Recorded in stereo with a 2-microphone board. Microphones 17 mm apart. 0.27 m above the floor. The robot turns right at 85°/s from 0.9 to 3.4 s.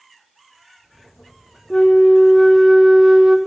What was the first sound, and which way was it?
A flute, 120° left.